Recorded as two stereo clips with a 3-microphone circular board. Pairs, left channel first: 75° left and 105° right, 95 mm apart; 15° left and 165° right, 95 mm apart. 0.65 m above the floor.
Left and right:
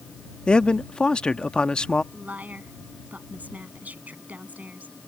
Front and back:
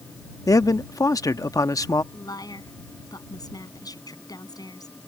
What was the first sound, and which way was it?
A man speaking, straight ahead.